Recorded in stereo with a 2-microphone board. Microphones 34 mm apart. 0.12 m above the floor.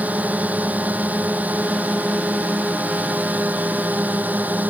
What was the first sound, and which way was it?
A drone, 50° right (ahead or behind).